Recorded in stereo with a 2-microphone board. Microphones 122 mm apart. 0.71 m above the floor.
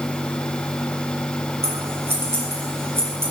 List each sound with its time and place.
1.6 s scissors: 20° right (ahead or behind), 7.5 m